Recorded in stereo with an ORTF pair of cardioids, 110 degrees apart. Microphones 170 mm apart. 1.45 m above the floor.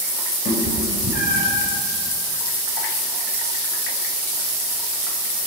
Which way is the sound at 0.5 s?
60° left.